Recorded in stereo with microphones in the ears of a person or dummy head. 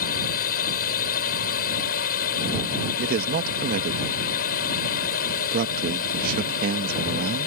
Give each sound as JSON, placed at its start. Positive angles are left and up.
{"t": 0.0, "sound": "a drone", "side_deg": 50}
{"t": 3.0, "sound": "a man speaking", "side_deg": -55}